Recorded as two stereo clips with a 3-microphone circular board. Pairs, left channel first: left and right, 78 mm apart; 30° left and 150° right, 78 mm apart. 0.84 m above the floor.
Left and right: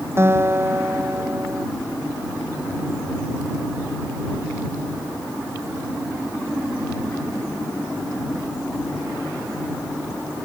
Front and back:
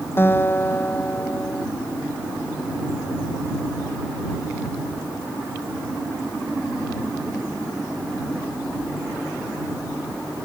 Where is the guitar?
30° right.